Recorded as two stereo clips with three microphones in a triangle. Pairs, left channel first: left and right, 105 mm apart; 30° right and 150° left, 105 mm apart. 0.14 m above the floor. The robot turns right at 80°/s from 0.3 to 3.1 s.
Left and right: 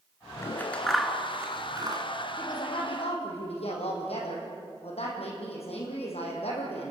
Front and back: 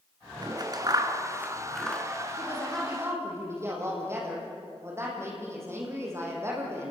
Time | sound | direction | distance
0.4 | scissors | 135° left | 2 m
2.4 | a woman speaking | 25° left | 6.5 m